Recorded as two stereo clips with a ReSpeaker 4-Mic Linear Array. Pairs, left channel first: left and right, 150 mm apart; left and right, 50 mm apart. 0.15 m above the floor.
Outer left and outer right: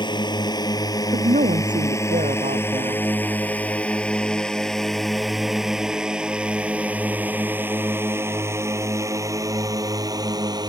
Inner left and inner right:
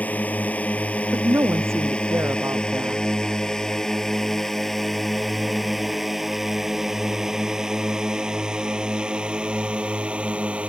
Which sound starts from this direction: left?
A drone, at 0.0 s.